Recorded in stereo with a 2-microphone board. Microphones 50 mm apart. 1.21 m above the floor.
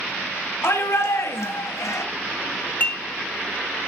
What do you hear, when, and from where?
0.6 s a shout: 70° left (ahead or behind), 1.9 m; by 2.0 s 75° left (ahead or behind), 0.9 m
2.8 s dishes clattering: 40° left (ahead or behind), 0.7 m